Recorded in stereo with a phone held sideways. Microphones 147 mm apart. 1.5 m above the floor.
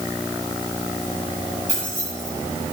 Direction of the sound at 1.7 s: 55° left (ahead or behind).